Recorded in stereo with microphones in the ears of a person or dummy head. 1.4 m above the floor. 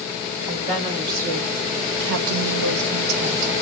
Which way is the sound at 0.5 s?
40° right (ahead or behind).